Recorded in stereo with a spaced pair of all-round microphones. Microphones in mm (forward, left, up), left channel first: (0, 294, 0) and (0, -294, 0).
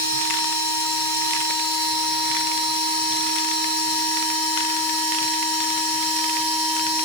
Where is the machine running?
30° left (ahead or behind), 4.5 m.